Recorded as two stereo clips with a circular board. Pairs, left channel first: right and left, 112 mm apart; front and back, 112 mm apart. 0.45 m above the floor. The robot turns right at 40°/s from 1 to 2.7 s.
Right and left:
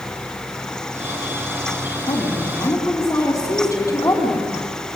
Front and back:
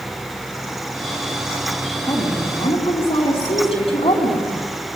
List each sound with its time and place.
2.1 s a woman speaking: 50° right, 3.5 m; by 4.5 s 25° right, 3.5 m